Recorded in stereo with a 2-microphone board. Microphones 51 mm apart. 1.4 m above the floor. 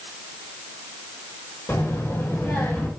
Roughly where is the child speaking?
Left.